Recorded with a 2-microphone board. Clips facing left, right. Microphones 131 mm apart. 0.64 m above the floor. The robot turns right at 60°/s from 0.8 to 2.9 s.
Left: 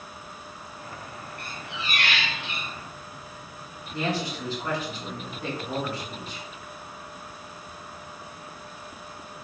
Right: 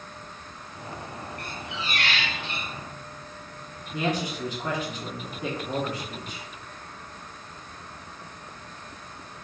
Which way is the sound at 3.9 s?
15° right (ahead or behind).